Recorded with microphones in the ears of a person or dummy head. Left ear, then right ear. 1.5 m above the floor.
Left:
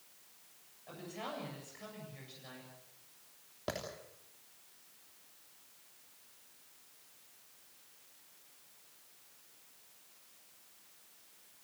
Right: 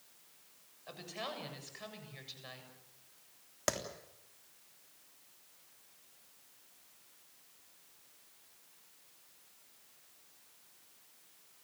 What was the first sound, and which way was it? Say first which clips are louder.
A woman speaking: right 1 dB; 30° right (ahead or behind).